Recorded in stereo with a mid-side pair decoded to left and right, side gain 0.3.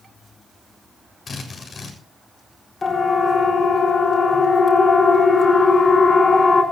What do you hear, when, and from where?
1.3 s a drill: 60° left, 7 m
2.8 s a siren: 45° left, 7 m